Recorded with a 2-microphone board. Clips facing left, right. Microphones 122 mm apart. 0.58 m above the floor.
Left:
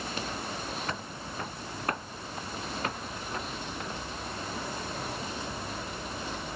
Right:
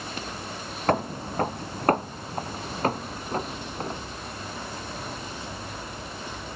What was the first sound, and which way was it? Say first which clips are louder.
Footsteps: right 12 dB; 60° right (ahead or behind).